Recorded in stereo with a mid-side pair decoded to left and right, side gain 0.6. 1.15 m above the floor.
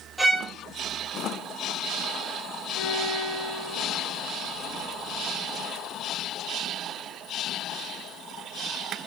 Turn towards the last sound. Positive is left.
turn(degrees=70)